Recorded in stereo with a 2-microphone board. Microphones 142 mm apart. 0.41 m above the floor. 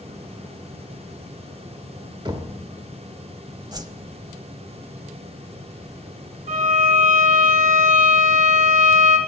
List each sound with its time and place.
2.2 s knocking: 30° right (ahead or behind), 1.4 m
3.7 s a whoosh: 25° right (ahead or behind), 0.6 m
6.5 s a violin: 55° right (ahead or behind), 2.5 m